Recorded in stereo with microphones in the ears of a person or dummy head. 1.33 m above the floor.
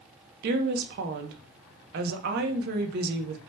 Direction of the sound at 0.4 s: 60° right (ahead or behind).